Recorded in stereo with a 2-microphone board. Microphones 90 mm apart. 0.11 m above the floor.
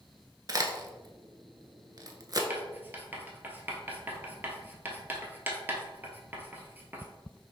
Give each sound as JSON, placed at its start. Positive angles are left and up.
{"t": 0.5, "sound": "a crack", "side_deg": -45, "distance_m": 0.6}
{"t": 2.5, "sound": "writing", "side_deg": -20, "distance_m": 0.8}